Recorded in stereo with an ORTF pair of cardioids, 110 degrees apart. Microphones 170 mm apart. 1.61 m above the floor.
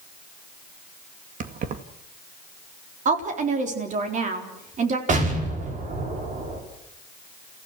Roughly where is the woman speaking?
Ahead right.